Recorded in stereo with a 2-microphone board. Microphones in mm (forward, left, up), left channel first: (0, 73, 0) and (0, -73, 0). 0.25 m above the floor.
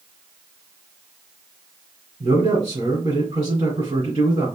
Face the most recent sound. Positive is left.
turn(degrees=-35)  # may be behind; listen again after turning